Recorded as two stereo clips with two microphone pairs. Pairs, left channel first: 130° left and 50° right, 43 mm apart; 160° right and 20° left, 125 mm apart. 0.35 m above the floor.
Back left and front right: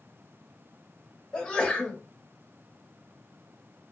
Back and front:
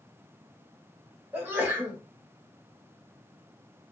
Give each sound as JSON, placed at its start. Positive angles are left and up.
{"t": 1.3, "sound": "a sneeze", "azimuth_deg": 75, "distance_m": 1.3}